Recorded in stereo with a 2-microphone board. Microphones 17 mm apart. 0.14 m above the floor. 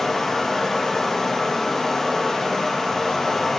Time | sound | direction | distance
0.0 | running water | 20° left (ahead or behind) | 3.5 m